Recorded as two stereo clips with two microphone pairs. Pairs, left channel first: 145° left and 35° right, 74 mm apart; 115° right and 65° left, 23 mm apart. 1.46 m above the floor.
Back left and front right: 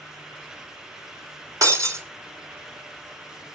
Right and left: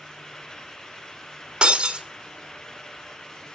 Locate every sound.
1.6 s breaking glass: 10° left, 2 m